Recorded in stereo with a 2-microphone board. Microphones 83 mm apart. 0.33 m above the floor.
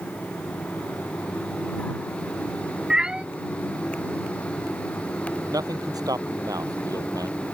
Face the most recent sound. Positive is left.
turn(degrees=-50)  # may be behind; listen again after turning